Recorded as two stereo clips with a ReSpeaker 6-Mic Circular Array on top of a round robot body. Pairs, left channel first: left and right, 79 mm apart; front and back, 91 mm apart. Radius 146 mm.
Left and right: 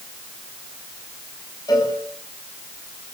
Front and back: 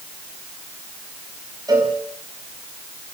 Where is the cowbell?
130° left, 8 m.